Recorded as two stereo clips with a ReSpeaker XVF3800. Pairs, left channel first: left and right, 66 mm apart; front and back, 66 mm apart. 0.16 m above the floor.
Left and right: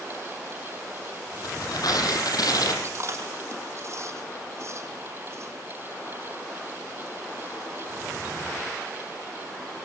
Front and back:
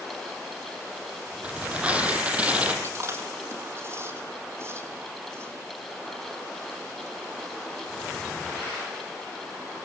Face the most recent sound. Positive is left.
turn(degrees=-130)